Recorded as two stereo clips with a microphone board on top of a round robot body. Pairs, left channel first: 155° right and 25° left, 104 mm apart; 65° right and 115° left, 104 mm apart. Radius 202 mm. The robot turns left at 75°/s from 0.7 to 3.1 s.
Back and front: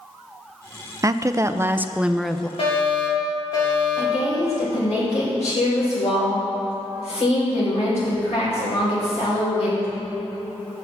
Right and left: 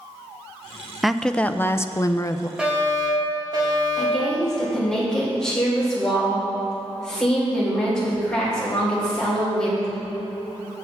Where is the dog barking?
I don't hear a dog barking.